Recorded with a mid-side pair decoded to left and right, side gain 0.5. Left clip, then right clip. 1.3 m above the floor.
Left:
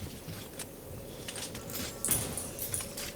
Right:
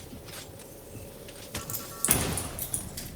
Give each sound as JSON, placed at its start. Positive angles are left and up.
{"t": 1.7, "sound": "keys jangling", "azimuth_deg": -70, "distance_m": 0.7}